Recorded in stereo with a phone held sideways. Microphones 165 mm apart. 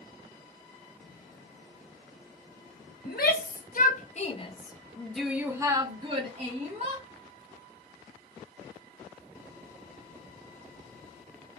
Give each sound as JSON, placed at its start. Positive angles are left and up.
{"t": 3.0, "sound": "a shout", "side_deg": 65, "distance_m": 1.1}